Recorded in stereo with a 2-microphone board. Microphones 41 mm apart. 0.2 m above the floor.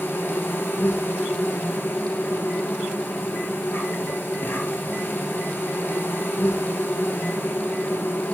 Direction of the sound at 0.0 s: 65° left (ahead or behind).